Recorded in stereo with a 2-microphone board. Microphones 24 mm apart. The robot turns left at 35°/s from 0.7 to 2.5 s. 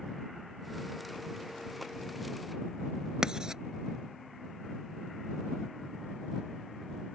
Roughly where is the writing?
Right.